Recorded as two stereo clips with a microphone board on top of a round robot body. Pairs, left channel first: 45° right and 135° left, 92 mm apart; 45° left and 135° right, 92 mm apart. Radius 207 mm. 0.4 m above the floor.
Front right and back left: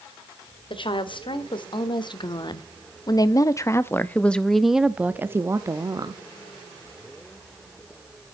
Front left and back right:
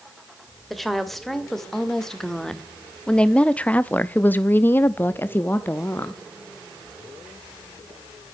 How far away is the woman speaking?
About 2.5 m.